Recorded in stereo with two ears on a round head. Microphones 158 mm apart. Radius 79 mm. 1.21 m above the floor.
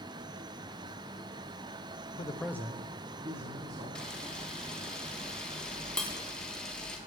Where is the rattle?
No rattle in this recording.